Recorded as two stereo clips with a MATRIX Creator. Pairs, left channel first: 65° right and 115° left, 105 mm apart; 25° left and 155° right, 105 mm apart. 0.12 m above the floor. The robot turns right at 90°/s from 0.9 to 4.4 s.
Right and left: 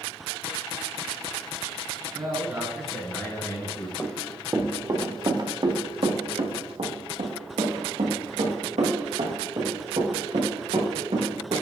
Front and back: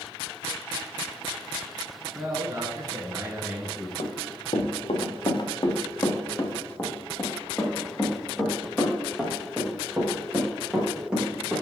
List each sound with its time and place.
2.1 s a man speaking: 140° left, 1.6 m; by 3.9 s 65° right, 1.6 m
4.0 s running footsteps: straight ahead, 1.6 m; by 11.5 s 125° left, 4.5 m